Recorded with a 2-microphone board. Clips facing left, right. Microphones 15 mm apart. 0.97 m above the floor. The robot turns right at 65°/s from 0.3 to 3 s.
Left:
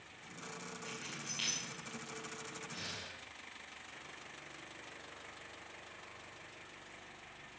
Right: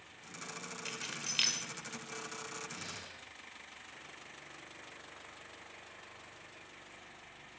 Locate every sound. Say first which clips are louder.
0.8 s keys jangling: right 5 dB; 60° right (ahead or behind), 2.5 m; by 1.6 s 75° right (ahead or behind), 2.5 m
2.7 s breathing: left 1 dB; 55° left (ahead or behind), 5 m; by 3.2 s 40° left (ahead or behind), 5 m